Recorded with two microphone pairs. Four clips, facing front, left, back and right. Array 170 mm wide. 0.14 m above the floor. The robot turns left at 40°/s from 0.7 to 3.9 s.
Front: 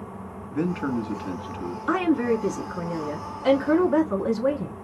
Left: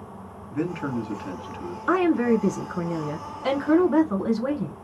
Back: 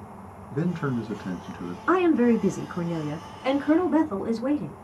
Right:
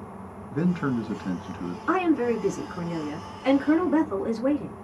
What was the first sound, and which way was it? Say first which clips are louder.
A man speaking: right 2 dB, front 2 dB; 90° right.